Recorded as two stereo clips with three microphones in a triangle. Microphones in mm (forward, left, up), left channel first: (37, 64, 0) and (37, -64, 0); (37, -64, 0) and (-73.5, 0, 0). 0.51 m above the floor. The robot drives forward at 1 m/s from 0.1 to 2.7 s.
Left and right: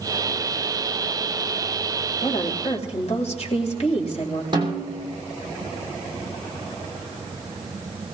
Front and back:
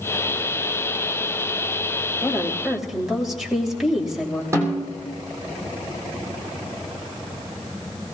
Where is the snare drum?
145° right, 3 m.